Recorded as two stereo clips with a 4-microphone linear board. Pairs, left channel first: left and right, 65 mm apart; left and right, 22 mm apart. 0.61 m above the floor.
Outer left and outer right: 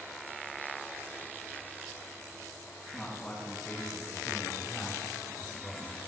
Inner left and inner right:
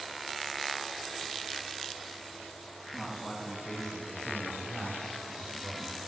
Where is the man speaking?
20° left (ahead or behind), 5 m; by 6.0 s 10° left (ahead or behind), 3.5 m.